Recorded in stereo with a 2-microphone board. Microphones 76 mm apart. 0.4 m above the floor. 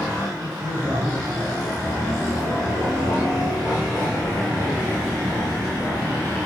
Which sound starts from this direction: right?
A man speaking, at 0.4 s.